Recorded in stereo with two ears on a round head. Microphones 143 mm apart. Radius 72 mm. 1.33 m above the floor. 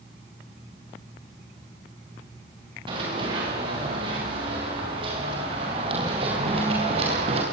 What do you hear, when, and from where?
2.9 s running footsteps: 30° right (ahead or behind), 9.5 m; by 7.4 s 40° right (ahead or behind), 7 m